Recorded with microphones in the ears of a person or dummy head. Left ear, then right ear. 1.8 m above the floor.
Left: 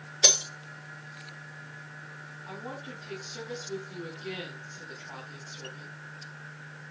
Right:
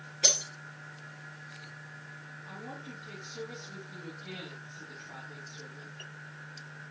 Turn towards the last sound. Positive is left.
turn(degrees=45)  # may be behind; listen again after turning